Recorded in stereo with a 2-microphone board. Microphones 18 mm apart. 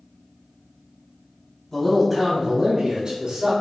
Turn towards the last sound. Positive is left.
turn(degrees=-55)  # may be behind; listen again after turning